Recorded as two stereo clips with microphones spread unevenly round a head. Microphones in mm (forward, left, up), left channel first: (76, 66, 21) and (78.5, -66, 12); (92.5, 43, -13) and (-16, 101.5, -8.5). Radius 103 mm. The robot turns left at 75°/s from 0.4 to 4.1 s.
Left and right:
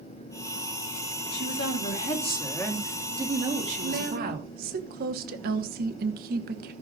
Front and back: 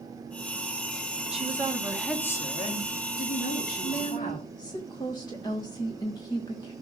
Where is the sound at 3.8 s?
80° right, 1.2 m; by 6.7 s 100° right, 1.2 m.